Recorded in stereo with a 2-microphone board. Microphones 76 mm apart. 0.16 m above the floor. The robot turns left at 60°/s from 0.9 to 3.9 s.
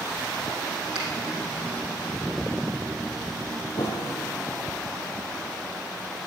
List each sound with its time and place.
0.9 s a finger snap: 10° right (ahead or behind), 4.5 m; by 1.1 s 15° right (ahead or behind), 4.5 m
3.8 s a piano: 70° left (ahead or behind), 2.5 m; by 4.4 s 75° left (ahead or behind), 2.5 m